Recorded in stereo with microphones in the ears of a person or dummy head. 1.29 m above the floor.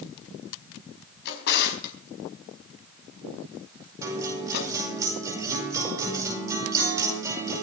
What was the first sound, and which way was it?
A drawer, 65° left (ahead or behind).